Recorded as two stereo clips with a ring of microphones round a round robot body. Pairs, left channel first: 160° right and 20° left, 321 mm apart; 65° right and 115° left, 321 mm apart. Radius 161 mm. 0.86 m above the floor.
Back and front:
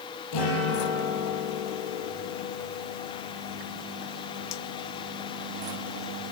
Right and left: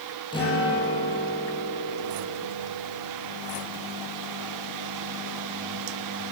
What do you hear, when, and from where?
0.3 s a guitar: 145° right, 9 m